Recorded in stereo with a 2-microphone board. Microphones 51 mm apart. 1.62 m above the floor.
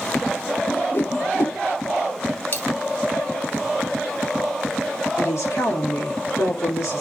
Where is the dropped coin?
45° left (ahead or behind), 3 m.